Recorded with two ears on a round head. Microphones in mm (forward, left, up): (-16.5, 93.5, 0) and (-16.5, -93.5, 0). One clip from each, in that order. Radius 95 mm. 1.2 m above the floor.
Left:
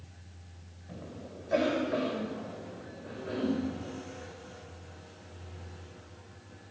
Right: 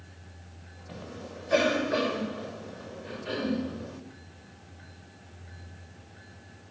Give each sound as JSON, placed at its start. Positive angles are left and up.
{"t": 0.9, "sound": "a cough", "side_deg": -75, "distance_m": 5.0}